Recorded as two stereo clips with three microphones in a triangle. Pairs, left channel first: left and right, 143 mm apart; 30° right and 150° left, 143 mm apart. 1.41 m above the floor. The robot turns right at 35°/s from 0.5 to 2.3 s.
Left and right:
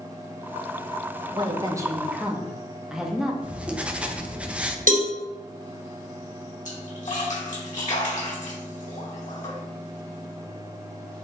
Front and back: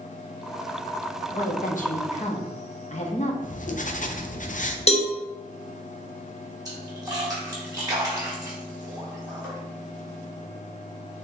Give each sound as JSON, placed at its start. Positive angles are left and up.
{"t": 1.3, "sound": "a woman speaking", "azimuth_deg": -40, "distance_m": 0.8}
{"t": 3.4, "sound": "writing", "azimuth_deg": -5, "distance_m": 0.5}
{"t": 4.9, "sound": "a cowbell", "azimuth_deg": -70, "distance_m": 0.8}
{"t": 6.7, "sound": "a splash", "azimuth_deg": 90, "distance_m": 1.7}